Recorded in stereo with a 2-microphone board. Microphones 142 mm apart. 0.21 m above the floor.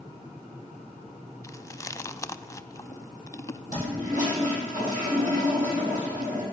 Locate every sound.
1.4 s chewing: 20° left (ahead or behind), 0.5 m
3.7 s a toilet flushing: 65° right (ahead or behind), 5.5 m